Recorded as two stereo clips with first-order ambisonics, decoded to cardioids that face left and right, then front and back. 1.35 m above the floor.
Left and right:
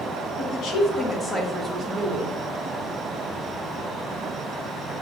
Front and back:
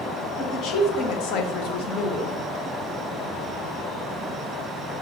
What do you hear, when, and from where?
0.4 s a woman speaking: 50° left, 1.1 m; by 2.4 s 55° right, 0.8 m